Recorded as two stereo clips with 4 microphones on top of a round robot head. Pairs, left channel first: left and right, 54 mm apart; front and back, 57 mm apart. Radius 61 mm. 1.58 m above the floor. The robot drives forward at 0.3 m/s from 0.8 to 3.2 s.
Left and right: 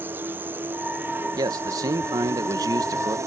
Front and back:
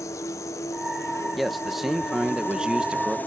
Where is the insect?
35° right; by 3.3 s 60° right.